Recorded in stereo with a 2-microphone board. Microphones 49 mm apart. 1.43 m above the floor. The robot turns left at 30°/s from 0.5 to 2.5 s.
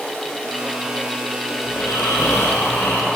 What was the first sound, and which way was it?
Snoring, 60° left (ahead or behind).